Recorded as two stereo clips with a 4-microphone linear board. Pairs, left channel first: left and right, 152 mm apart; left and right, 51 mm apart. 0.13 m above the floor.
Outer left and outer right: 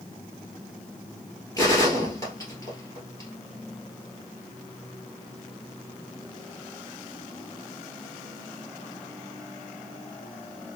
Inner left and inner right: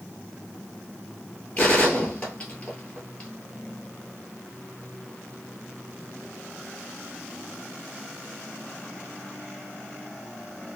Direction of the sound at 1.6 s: 20° left (ahead or behind).